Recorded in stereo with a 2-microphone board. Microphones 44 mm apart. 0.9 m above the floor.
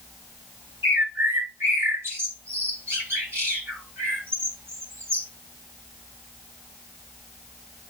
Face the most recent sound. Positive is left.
turn(degrees=-70)  # may be behind; listen again after turning